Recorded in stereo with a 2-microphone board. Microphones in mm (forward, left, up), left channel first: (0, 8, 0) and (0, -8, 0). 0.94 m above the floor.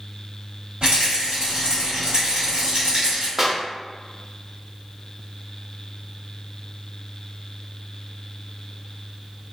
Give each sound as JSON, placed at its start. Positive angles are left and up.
{"t": 0.8, "sound": "a rattle", "side_deg": -80, "distance_m": 1.5}
{"t": 3.4, "sound": "a clap", "side_deg": -20, "distance_m": 0.6}